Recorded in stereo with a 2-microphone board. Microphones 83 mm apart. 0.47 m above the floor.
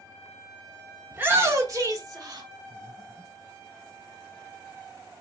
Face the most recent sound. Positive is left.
turn(degrees=-85)